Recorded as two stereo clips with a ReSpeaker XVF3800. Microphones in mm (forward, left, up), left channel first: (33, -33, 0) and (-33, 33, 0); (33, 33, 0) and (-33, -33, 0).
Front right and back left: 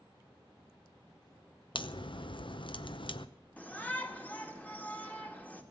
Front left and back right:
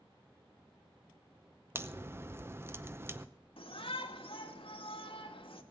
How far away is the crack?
About 0.7 m.